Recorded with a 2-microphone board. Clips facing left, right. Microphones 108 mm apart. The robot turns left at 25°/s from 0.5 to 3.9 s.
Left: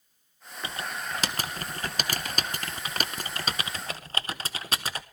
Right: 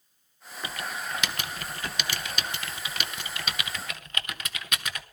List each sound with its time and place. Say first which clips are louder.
0.6 s typing on a keyboard: even; 30° left (ahead or behind), 0.8 m; by 5.0 s 35° left (ahead or behind), 0.8 m